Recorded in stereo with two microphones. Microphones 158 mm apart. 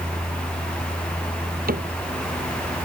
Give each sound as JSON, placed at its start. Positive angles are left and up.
{"t": 1.7, "sound": "a cupboard door", "side_deg": -70}